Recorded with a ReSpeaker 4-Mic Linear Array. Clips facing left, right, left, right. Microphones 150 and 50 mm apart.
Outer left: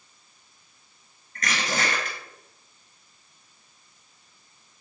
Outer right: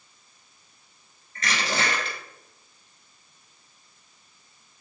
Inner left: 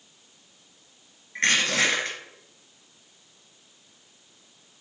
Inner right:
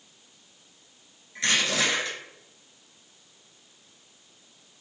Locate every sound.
1.4 s crushing: 50° left (ahead or behind), 1.4 m